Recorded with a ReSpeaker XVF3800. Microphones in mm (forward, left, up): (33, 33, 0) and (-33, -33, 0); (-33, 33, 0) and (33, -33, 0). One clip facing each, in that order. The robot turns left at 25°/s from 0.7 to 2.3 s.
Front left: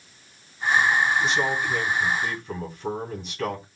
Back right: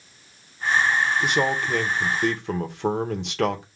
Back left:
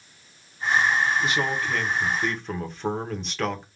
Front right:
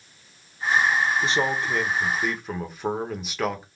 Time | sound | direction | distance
1.2 | a man speaking | 100° right | 1.0 m